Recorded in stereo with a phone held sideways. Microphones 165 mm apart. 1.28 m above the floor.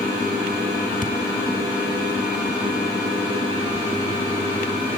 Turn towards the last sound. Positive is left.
turn(degrees=50)  # may be behind; listen again after turning